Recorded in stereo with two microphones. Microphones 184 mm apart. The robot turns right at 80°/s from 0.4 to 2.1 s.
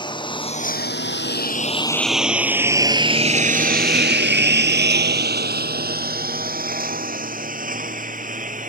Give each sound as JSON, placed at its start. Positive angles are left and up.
{"t": 0.0, "sound": "a lawn mower", "side_deg": 25}